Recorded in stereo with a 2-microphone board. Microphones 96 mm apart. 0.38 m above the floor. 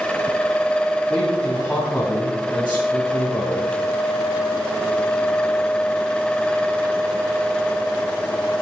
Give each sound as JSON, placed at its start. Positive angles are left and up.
{"t": 1.1, "sound": "a man speaking", "side_deg": 10, "distance_m": 2.5}